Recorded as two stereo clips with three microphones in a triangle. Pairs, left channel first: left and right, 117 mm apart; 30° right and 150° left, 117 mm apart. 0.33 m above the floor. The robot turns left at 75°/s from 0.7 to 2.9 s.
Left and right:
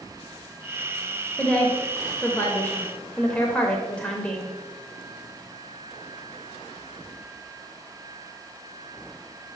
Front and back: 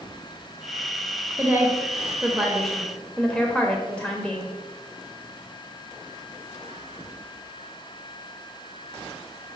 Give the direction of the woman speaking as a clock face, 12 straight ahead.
7 o'clock.